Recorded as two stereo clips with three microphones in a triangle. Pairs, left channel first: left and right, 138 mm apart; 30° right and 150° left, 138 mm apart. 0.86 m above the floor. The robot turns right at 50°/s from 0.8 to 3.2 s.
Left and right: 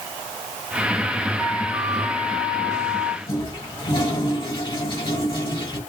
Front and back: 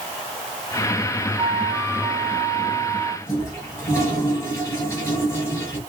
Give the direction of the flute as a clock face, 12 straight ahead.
5 o'clock.